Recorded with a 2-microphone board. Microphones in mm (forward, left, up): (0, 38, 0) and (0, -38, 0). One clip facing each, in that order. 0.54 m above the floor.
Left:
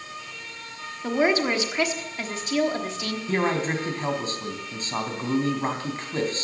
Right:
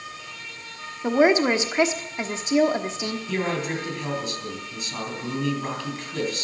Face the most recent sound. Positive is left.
turn(degrees=35)  # may be behind; listen again after turning